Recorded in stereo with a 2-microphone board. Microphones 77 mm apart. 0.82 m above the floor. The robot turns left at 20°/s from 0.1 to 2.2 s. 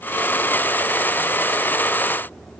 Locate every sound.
Only background noise.